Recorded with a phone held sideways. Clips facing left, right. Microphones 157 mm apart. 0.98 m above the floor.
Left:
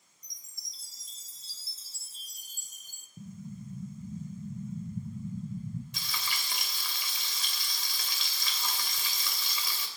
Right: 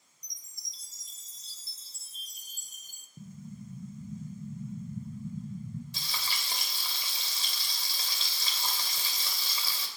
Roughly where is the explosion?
Centre.